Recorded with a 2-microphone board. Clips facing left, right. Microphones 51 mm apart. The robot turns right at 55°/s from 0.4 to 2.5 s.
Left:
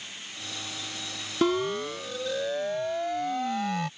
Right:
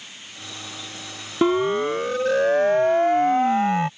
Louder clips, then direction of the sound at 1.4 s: Right 6 dB; 20° right (ahead or behind).